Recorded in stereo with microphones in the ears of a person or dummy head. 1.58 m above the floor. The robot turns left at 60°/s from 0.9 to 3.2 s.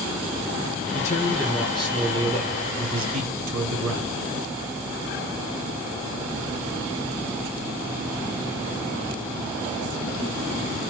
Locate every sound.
0.9 s a man speaking: 50° left, 1.6 m; by 4.2 s 85° right, 1.6 m